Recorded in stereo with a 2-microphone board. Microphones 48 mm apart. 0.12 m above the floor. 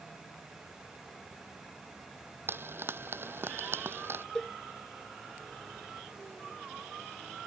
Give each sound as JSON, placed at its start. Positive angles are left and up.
{"t": 2.5, "sound": "frying", "side_deg": -55}
{"t": 4.3, "sound": "a cowbell", "side_deg": 15}